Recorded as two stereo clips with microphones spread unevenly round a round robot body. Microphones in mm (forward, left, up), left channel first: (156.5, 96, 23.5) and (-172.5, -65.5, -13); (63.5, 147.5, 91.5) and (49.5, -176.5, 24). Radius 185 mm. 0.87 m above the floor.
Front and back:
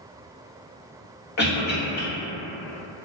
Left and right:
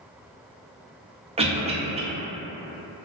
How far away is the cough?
About 0.9 m.